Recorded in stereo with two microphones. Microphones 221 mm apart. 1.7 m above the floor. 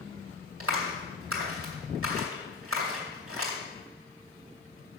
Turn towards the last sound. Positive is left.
turn(degrees=-80)